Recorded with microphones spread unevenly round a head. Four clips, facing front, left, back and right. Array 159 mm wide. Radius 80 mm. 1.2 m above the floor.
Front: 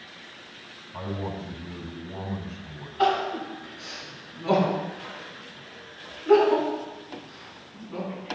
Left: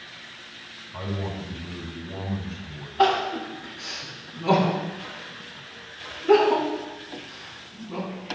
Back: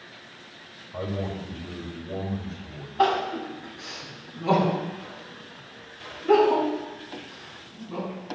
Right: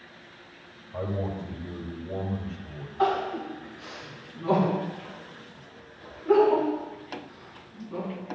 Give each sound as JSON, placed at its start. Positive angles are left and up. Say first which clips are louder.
{"t": 0.9, "sound": "a man speaking", "louder": "right 1 dB, back 2 dB", "azimuth_deg": -135, "distance_m": 5.0}
{"t": 3.0, "sound": "crying", "louder": "left 4 dB, back 1 dB", "azimuth_deg": 135, "distance_m": 6.5}